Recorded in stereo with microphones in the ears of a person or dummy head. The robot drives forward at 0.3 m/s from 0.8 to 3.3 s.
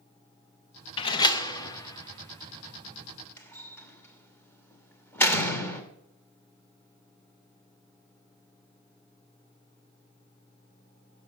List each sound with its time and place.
1.0 s a door slam: 25° left (ahead or behind), 0.6 m; by 5.8 s 15° left (ahead or behind), 1.2 m